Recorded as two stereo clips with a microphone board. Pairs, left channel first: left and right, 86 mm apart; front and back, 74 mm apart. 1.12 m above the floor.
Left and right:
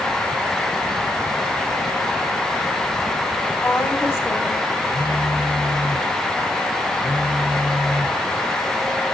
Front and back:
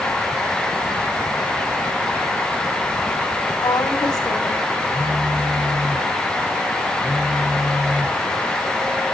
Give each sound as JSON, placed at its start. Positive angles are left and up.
{"t": 3.6, "sound": "a woman speaking", "azimuth_deg": 15, "distance_m": 3.5}
{"t": 4.9, "sound": "a phone buzzing", "azimuth_deg": 100, "distance_m": 2.0}